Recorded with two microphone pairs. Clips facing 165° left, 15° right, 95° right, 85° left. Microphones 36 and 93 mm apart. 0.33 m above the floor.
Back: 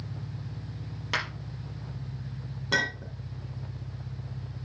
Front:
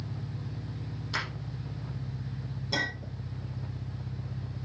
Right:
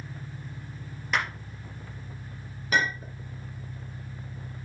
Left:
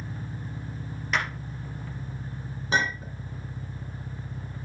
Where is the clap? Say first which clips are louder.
Back 3 dB, even; straight behind, 5 m.